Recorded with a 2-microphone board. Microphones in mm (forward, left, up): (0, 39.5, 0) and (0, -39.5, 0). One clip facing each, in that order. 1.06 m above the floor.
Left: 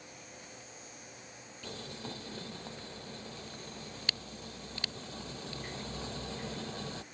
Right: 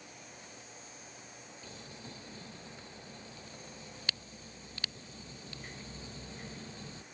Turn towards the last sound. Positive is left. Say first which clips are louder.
# left 8 dB
turn(degrees=90)